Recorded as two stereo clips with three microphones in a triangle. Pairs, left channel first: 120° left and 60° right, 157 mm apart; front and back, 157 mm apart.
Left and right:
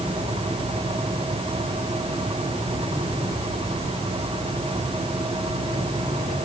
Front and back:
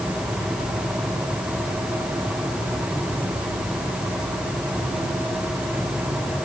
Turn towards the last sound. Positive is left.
No sound to turn to.